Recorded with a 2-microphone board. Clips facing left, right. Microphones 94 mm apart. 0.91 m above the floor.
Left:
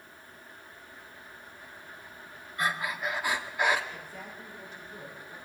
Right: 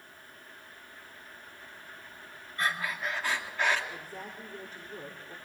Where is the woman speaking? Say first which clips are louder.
Right 1 dB; 45° right (ahead or behind), 3 m.